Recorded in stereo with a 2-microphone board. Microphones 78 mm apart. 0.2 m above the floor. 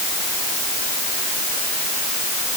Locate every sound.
Only background noise.